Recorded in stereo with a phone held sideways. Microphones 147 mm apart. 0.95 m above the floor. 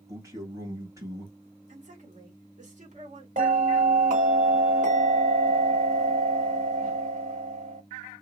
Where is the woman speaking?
55° right (ahead or behind), 1.7 m.